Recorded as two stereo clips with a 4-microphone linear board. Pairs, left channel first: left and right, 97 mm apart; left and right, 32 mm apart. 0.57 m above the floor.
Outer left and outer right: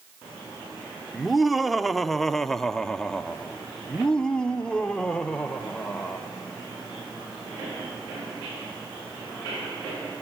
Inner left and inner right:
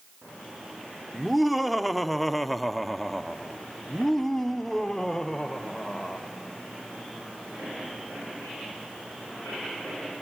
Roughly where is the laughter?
Centre.